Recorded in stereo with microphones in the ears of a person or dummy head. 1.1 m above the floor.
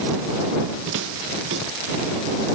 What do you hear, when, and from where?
0.9 s footsteps: 75° right (ahead or behind); by 2.1 s 70° right (ahead or behind)